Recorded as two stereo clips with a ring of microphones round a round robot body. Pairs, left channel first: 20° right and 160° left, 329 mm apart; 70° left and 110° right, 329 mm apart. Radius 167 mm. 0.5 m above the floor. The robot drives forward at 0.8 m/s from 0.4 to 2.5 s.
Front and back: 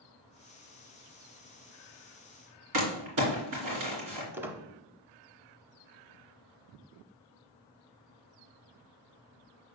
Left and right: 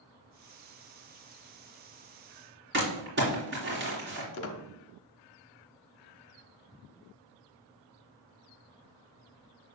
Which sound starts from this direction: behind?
Crumpling, at 2.7 s.